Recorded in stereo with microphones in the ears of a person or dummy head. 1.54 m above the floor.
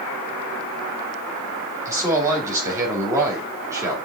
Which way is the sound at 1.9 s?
15° right (ahead or behind).